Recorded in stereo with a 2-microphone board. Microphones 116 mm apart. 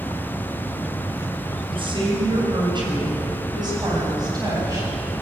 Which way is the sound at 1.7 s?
50° right (ahead or behind).